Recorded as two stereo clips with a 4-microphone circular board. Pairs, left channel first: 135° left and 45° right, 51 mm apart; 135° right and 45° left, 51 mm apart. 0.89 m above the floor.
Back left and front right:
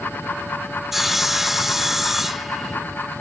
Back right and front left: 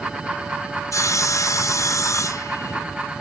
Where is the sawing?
130° right, 0.5 m.